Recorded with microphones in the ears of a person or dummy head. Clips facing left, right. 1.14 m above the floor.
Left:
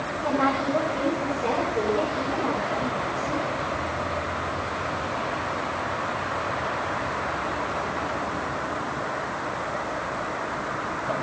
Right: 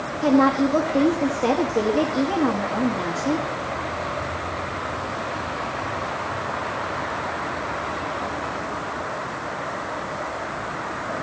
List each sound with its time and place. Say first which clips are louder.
0.2 s a woman speaking: right 8 dB; 75° right (ahead or behind), 1.6 m